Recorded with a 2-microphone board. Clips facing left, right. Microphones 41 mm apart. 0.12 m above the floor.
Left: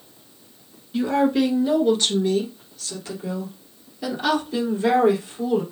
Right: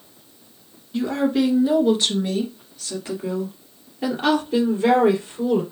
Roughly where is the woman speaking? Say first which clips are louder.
Left 1 dB; centre.